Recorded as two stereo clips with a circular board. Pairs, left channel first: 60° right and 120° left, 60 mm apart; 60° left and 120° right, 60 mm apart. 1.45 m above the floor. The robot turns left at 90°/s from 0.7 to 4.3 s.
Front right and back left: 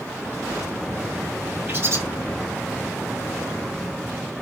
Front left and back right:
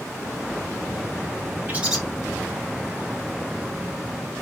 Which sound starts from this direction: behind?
A bird, at 1.7 s.